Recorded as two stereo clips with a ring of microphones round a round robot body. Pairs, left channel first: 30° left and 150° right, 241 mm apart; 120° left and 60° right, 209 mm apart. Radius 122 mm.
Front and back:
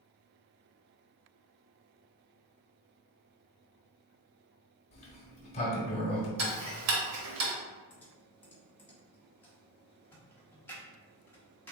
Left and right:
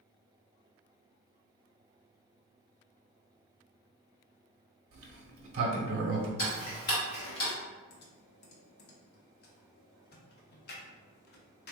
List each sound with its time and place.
4.9 s a sliding door: 35° right, 0.7 m
6.4 s ticking: 175° left, 0.8 m
7.9 s typing on a keyboard: 110° left, 0.7 m